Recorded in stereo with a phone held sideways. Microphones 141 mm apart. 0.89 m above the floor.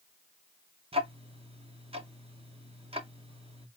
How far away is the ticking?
About 0.5 m.